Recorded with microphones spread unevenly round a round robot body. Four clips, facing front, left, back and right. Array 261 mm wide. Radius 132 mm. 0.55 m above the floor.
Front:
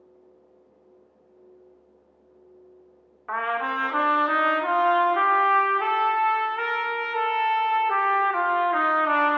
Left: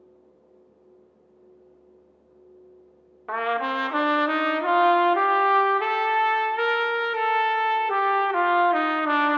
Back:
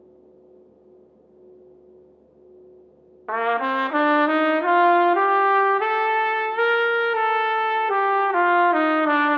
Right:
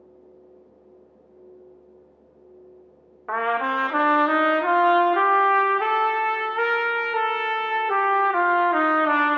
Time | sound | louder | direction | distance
3.3 | a trumpet | right 2 dB, back 5 dB | 170° right | 0.6 m